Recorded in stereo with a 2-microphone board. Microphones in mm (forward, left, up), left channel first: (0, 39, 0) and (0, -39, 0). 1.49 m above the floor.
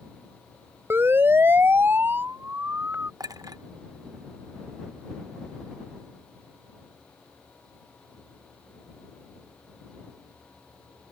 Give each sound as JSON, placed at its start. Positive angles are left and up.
{"t": 0.9, "sound": "a siren", "side_deg": -30}
{"t": 3.2, "sound": "a clink", "side_deg": -50}